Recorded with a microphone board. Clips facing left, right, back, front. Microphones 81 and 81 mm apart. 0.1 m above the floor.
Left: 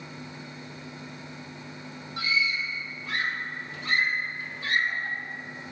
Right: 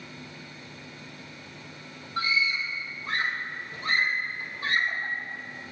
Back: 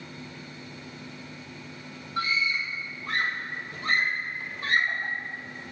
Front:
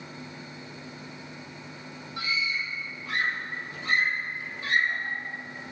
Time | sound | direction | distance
2.2 | a scream | 140° right | 3.5 m